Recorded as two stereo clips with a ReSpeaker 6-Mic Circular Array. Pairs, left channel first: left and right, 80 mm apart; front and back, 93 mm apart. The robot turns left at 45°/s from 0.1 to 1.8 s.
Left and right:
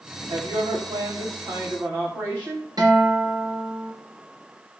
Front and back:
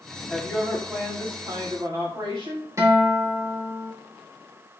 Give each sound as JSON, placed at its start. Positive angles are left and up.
{"t": 0.3, "sound": "a woman speaking", "azimuth_deg": -70, "distance_m": 9.5}
{"t": 2.8, "sound": "a guitar", "azimuth_deg": -125, "distance_m": 7.0}